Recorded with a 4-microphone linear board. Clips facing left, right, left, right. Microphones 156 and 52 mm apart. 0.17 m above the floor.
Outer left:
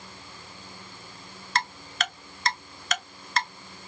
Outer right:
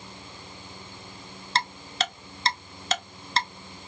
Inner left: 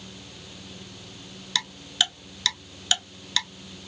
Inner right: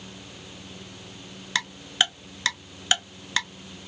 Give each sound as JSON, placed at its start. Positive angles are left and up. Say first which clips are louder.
{"t": 1.6, "sound": "ticking", "louder": "outer right 1 dB, inner right 2 dB", "side_deg": -30, "distance_m": 0.6}